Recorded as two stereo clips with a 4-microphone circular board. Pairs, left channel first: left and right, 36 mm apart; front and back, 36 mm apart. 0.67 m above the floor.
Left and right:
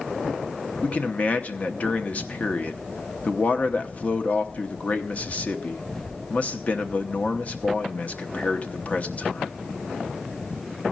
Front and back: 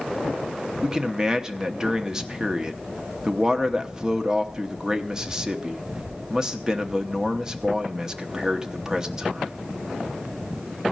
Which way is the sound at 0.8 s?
115° left.